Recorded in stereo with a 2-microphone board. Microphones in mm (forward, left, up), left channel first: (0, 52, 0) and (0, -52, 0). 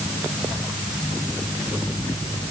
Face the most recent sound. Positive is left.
No sound to turn to.